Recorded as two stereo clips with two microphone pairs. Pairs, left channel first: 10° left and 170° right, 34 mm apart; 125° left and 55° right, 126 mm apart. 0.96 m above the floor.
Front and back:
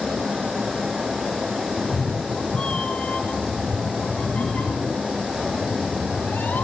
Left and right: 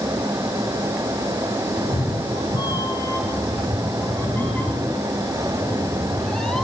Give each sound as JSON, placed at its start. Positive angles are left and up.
{"t": 1.8, "sound": "a cat meowing", "azimuth_deg": 80, "distance_m": 1.9}